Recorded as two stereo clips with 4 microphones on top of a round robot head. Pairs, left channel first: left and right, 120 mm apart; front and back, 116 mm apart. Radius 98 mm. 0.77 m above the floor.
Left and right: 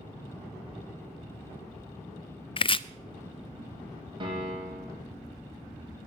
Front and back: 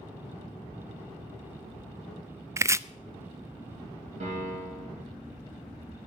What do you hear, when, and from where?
2.6 s chopping: 120° left, 0.6 m
4.2 s a piano: 140° right, 6 m